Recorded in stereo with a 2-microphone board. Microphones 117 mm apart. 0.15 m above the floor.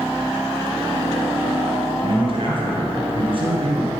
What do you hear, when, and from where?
2.0 s a man speaking: 50° right (ahead or behind), 3 m